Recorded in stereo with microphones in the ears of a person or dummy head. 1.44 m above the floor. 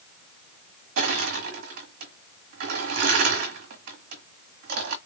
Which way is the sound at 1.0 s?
55° right (ahead or behind).